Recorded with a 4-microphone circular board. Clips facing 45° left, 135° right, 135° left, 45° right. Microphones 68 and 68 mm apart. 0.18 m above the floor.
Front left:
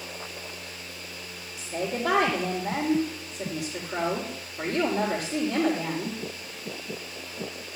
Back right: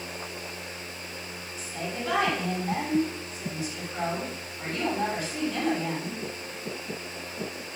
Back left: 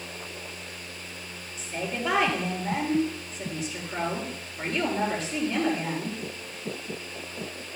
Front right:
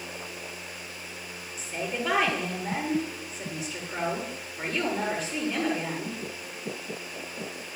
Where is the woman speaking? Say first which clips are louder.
Front left 5 dB, even; 45° left, 3.5 m.